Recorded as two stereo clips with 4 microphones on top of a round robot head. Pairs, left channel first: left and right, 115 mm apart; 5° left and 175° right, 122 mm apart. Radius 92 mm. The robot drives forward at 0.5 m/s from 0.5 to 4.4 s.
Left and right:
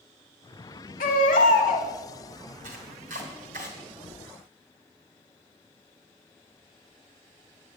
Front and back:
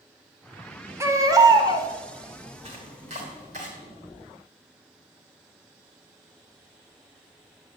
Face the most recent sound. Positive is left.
turn(degrees=-135)